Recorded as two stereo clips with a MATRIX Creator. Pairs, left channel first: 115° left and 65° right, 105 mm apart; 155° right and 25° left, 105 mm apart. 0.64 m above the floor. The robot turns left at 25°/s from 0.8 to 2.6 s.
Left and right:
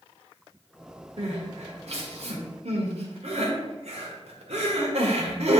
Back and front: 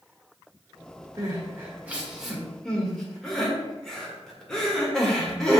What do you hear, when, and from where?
1.2 s crying: 35° right, 1.4 m; by 5.6 s 70° right, 1.4 m